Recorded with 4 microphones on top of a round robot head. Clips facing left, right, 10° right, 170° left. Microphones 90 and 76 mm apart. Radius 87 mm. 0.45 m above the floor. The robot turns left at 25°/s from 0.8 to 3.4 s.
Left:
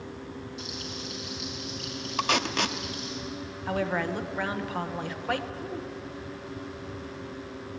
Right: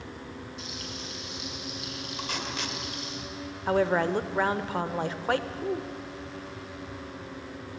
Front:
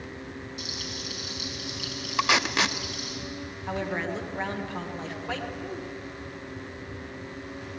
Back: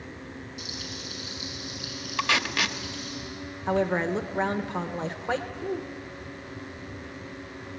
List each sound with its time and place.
0.6 s frying: 20° left, 5 m; by 3.2 s 40° right, 5 m
2.2 s tape being pulled: 65° left, 0.8 m; by 2.8 s 50° left, 0.8 m
3.7 s a woman speaking: 140° right, 1.3 m